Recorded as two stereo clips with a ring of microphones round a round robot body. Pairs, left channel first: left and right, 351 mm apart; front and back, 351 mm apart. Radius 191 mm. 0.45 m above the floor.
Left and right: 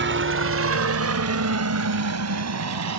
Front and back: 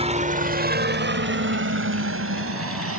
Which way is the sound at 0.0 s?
120° right.